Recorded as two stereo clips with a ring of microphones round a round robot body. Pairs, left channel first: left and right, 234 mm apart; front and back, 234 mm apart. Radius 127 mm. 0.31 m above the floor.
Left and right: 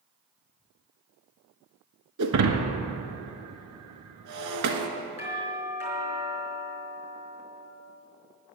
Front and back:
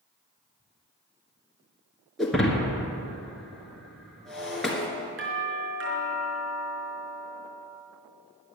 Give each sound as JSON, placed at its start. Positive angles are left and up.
{"t": 2.2, "sound": "breaking glass", "azimuth_deg": -90, "distance_m": 1.4}
{"t": 5.2, "sound": "a doorbell", "azimuth_deg": 150, "distance_m": 5.0}